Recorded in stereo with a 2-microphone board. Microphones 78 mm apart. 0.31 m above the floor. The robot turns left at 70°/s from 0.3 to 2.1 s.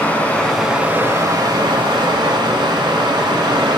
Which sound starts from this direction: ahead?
Running water, at 0.0 s.